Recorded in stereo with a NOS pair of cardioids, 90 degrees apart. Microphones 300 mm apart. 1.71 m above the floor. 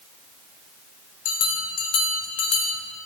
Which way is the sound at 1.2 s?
60° left.